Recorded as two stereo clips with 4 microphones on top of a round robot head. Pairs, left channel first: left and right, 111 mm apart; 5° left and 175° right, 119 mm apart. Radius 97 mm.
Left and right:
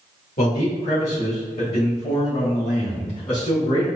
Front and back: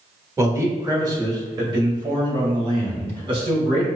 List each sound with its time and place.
0.4 s a man speaking: 120° left, 1.2 m; by 3.9 s 140° left, 3 m